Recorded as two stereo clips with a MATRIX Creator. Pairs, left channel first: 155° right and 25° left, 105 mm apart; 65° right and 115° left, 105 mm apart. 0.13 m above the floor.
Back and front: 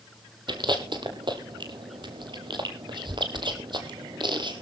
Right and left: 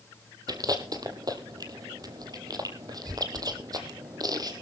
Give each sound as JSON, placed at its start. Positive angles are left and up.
{"t": 0.5, "sound": "chewing", "azimuth_deg": 65, "distance_m": 1.7}